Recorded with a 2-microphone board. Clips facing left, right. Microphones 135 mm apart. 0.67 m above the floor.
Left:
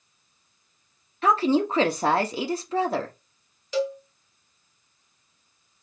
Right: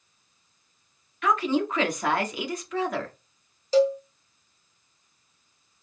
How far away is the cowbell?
About 1.1 m.